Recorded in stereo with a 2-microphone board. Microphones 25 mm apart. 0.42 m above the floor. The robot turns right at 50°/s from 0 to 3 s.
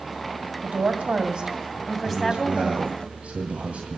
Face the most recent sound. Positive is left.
turn(degrees=-110)